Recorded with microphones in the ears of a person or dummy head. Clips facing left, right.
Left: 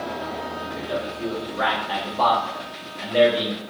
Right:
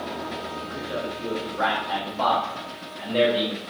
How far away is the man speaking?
About 1.8 m.